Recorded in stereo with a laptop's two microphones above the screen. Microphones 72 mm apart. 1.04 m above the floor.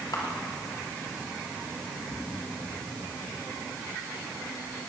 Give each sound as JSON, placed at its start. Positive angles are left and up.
{"t": 0.1, "sound": "a camera shutter", "side_deg": 65, "distance_m": 3.0}